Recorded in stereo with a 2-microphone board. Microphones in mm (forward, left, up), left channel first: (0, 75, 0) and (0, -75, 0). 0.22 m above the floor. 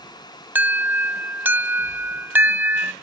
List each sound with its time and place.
0.6 s an alarm: 15° right (ahead or behind)